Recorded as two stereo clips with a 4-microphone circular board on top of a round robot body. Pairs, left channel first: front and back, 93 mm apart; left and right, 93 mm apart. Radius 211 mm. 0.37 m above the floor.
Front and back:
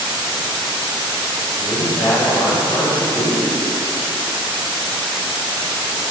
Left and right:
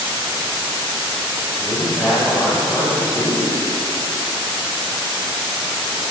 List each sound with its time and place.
1.6 s a man speaking: 20° left, 3 m